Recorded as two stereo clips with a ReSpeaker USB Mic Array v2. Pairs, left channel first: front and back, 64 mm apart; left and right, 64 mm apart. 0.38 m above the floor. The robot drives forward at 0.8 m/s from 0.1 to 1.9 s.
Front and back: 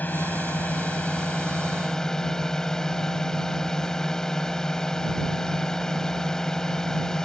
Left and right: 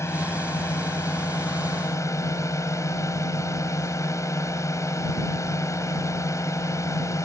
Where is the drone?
60° left; by 7.3 s 80° left.